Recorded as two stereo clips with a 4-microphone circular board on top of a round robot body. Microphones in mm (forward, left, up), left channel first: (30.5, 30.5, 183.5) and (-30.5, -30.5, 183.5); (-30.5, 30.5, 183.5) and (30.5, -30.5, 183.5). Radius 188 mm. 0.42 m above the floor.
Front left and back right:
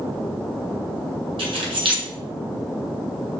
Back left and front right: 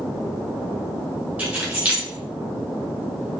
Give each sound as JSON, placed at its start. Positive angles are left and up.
{"t": 1.4, "sound": "keys jangling", "azimuth_deg": -115, "distance_m": 3.0}